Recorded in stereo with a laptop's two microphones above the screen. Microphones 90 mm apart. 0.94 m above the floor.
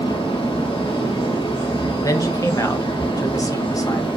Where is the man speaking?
40° left (ahead or behind), 0.9 m.